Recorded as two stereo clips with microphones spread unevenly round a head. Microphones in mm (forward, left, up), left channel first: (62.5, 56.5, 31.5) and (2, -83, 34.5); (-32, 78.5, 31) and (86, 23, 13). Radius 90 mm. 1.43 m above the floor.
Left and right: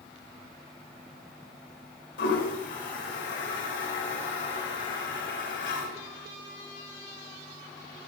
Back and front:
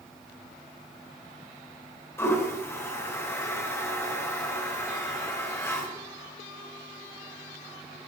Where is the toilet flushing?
85° left, 3.5 m.